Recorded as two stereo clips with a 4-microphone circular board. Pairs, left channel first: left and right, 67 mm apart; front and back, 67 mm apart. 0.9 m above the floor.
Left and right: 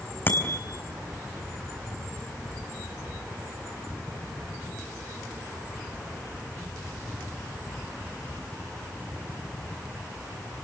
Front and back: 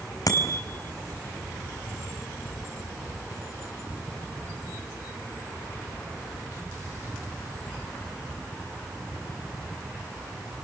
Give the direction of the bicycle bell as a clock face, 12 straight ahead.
11 o'clock.